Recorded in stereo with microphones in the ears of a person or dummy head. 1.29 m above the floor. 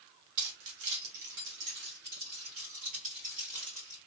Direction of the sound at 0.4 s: 65° right (ahead or behind).